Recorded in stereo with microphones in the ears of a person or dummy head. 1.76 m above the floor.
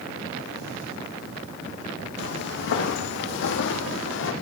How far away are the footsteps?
About 5 m.